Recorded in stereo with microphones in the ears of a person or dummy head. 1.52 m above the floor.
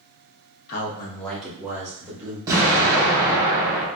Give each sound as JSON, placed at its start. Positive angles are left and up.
{"t": 0.7, "sound": "a man speaking", "side_deg": 50, "distance_m": 0.7}
{"t": 2.5, "sound": "an explosion", "side_deg": -20, "distance_m": 1.8}